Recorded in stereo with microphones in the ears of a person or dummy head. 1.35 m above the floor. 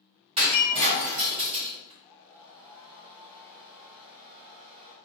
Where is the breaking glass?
30° right (ahead or behind), 1.5 m.